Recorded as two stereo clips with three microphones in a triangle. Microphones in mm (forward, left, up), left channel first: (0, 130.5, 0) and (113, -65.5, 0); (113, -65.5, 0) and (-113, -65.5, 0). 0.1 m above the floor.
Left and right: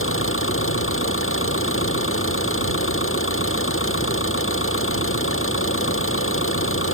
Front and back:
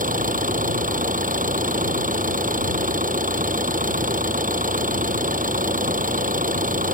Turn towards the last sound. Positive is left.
turn(degrees=130)